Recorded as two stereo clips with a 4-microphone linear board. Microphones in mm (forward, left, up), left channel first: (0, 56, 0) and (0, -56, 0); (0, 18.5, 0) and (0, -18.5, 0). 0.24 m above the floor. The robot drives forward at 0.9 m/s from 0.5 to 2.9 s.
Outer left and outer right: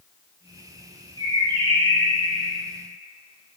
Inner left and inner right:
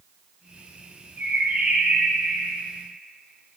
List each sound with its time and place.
1.2 s a bird: 50° right (ahead or behind), 3 m; by 2.7 s 55° right (ahead or behind), 2.5 m